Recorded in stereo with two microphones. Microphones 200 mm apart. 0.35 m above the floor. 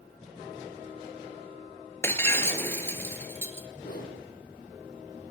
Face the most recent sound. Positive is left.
turn(degrees=50)  # may be behind; listen again after turning